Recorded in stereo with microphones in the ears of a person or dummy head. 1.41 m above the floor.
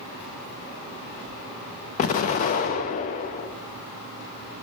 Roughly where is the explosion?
Left.